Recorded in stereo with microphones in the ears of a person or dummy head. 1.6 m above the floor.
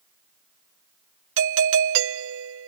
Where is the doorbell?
70° right (ahead or behind).